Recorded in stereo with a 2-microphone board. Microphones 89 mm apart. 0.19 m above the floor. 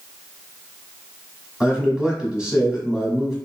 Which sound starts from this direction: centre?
A man speaking, at 1.6 s.